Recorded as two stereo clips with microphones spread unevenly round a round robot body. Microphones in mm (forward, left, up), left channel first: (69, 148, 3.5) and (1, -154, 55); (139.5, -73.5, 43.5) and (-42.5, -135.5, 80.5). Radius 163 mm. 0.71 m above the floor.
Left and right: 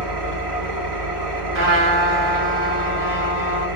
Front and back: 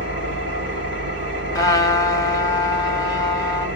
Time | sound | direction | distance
0.0 | an engine running | 135° right | 2.0 m
1.6 | a trumpet | 50° right | 1.0 m